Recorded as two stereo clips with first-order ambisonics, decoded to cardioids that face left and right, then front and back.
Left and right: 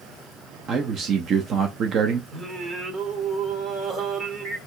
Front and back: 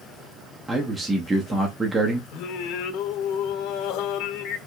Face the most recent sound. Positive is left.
turn(degrees=-25)